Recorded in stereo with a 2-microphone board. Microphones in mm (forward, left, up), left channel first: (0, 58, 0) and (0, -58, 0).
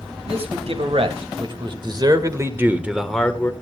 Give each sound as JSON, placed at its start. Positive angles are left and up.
{"t": 0.2, "sound": "a man speaking", "side_deg": -65, "distance_m": 3.0}